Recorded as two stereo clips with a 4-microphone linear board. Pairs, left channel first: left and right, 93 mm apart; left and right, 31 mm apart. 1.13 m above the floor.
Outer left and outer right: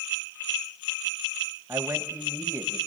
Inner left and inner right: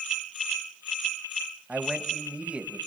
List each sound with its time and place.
1.7 s a man speaking: 35° right (ahead or behind), 1.7 m